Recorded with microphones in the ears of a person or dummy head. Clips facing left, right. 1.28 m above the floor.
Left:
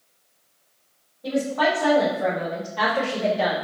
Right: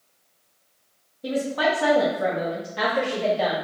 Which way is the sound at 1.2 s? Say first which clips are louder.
Left 1 dB; 60° right (ahead or behind).